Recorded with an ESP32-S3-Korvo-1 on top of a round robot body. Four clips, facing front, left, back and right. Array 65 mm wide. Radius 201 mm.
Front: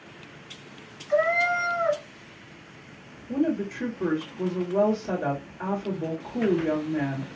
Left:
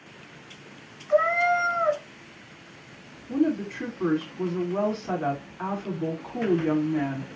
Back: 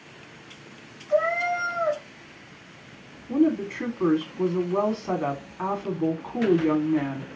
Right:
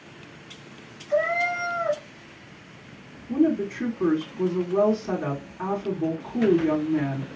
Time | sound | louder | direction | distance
1.1 | a cat meowing | left 2 dB, front 1 dB | 95° left | 1.2 m
3.3 | a woman speaking | right 3 dB, back 4 dB | 165° left | 2 m